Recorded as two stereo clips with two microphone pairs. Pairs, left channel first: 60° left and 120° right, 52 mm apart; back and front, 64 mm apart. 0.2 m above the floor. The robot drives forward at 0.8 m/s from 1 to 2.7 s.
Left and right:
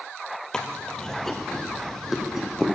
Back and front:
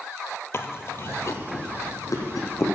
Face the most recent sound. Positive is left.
turn(degrees=165)